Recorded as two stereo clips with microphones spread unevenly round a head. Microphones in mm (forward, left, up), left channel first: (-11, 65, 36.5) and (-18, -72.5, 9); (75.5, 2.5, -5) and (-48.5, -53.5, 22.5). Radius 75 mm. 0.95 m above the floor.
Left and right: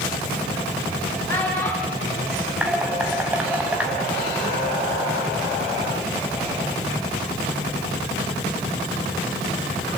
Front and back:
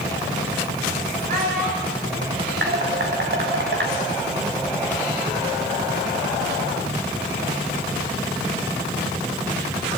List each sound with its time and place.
1.3 s a child speaking: 160° left, 5.5 m
2.6 s dishes clattering: 175° right, 4.5 m